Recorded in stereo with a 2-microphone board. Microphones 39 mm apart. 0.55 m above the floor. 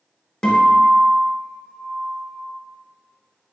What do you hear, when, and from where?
0.4 s a guitar: 20° left (ahead or behind), 0.8 m